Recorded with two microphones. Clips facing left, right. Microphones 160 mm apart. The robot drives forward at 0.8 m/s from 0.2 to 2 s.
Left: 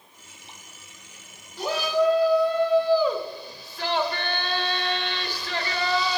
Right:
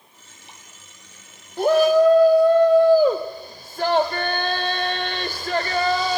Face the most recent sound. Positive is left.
turn(degrees=-45)  # may be behind; listen again after turning